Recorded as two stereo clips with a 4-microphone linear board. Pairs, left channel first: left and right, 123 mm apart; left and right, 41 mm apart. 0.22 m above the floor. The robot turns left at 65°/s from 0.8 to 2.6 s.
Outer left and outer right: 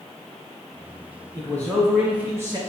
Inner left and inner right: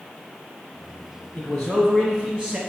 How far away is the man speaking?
About 1.3 m.